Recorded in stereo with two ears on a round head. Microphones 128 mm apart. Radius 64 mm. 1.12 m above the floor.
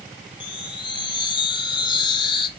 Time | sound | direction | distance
0.4 | a chime | 35° left (ahead or behind) | 1.3 m